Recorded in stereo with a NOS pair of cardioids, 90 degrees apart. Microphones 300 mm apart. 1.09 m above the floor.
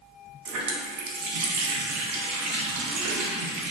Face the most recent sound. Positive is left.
turn(degrees=-65)